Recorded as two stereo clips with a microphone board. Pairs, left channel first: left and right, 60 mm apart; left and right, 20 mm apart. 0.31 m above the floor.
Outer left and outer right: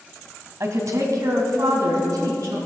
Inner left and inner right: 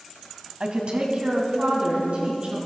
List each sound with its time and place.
0.6 s a woman speaking: 55° right (ahead or behind), 2 m; by 2.6 s 65° right (ahead or behind), 4 m